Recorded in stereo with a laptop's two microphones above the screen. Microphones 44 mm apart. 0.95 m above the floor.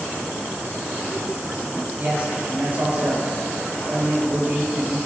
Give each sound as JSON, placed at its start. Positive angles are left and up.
{"t": 2.0, "sound": "a man speaking", "side_deg": -35, "distance_m": 5.0}